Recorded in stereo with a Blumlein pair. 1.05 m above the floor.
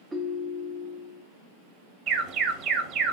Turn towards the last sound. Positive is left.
turn(degrees=-30)